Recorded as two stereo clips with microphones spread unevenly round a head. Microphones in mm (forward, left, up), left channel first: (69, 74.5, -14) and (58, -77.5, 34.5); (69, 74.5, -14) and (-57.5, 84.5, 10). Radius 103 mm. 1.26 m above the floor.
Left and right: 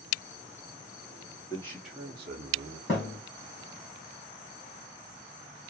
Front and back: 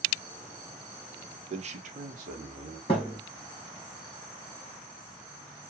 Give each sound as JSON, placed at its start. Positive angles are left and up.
{"t": 1.5, "sound": "a man speaking", "azimuth_deg": 140, "distance_m": 0.9}
{"t": 2.9, "sound": "a thud", "azimuth_deg": 40, "distance_m": 2.0}